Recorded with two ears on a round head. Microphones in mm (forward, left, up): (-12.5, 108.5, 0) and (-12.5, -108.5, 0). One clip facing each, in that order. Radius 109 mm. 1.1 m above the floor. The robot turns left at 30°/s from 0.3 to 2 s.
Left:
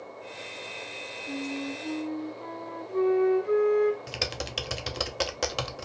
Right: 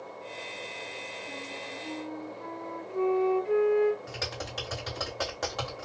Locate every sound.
1.3 s a flute: 60° left (ahead or behind), 1.3 m; by 4.0 s 65° left (ahead or behind), 1.3 m
4.1 s typing on a keyboard: 40° left (ahead or behind), 0.5 m